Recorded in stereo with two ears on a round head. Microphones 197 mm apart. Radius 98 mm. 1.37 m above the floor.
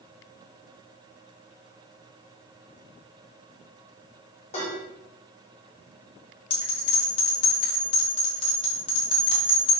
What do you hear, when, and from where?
4.5 s dishes clattering: 35° left (ahead or behind), 3 m
6.5 s a bell: 25° left (ahead or behind), 2 m